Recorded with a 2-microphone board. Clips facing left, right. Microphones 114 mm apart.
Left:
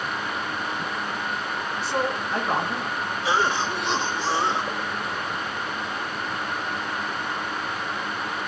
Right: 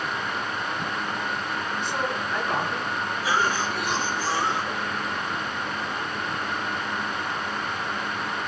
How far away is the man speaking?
About 6 m.